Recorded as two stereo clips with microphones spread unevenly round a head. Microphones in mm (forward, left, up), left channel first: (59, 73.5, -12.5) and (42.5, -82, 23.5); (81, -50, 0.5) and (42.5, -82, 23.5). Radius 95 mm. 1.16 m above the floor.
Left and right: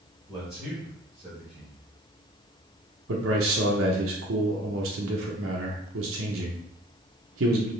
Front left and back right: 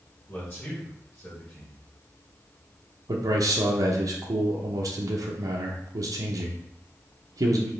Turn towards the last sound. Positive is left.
turn(degrees=-130)